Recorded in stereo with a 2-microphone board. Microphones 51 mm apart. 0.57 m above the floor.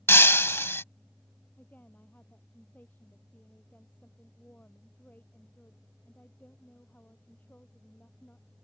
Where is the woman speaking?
35° left (ahead or behind).